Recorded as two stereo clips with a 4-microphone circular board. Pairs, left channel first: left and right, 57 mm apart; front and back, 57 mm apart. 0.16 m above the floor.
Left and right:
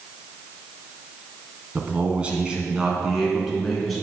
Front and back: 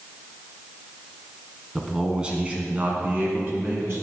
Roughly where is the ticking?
No ticking in this recording.